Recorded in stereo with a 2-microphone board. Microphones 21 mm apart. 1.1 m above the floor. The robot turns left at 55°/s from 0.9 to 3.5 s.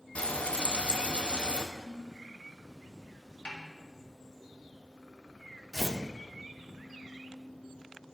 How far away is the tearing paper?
About 0.7 m.